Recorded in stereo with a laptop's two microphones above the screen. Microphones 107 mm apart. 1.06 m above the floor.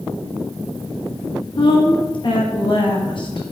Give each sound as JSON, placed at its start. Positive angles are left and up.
{"t": 1.6, "sound": "a woman speaking", "side_deg": 50, "distance_m": 1.0}